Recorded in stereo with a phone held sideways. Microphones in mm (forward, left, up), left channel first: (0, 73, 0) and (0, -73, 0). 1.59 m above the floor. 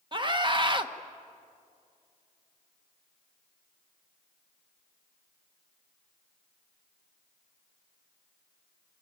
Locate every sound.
0.1 s a scream: 35° right (ahead or behind), 1.2 m